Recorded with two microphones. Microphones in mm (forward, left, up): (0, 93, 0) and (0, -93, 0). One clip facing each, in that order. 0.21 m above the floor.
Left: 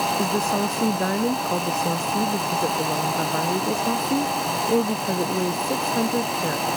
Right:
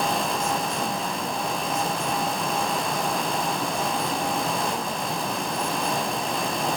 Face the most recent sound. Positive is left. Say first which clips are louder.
# left 4 dB
turn(degrees=80)